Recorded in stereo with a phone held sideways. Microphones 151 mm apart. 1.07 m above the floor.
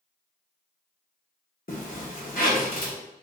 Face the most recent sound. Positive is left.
turn(degrees=70)  # may be behind; listen again after turning